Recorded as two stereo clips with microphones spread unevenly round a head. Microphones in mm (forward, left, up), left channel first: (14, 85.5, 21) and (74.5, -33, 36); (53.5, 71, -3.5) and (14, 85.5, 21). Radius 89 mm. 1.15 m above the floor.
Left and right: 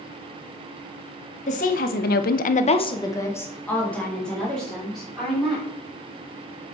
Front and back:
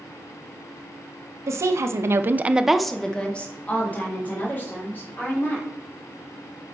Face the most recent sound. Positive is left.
turn(degrees=25)